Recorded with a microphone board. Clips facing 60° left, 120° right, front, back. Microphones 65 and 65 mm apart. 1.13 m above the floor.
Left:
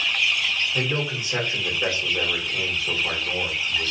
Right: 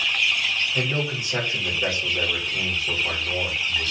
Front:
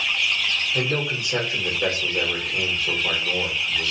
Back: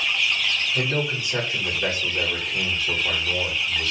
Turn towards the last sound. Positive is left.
turn(degrees=0)